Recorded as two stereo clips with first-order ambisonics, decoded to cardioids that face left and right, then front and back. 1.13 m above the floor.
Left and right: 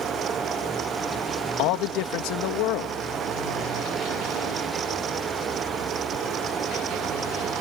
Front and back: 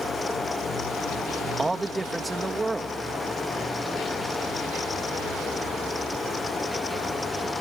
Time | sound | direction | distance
1.6 | a man speaking | 95° left | ?